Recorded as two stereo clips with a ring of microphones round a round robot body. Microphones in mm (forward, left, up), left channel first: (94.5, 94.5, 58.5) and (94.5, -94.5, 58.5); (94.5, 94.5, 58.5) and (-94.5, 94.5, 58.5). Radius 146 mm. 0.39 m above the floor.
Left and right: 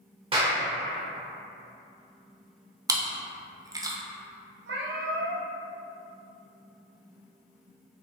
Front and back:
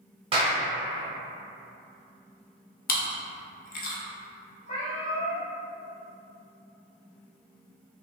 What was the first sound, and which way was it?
A clap, 135° right.